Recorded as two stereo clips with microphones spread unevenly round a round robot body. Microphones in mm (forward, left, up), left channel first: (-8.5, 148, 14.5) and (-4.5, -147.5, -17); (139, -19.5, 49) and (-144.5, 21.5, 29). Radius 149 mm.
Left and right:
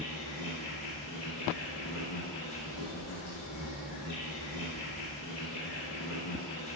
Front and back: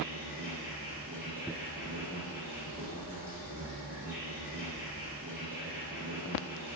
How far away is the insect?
About 1.0 m.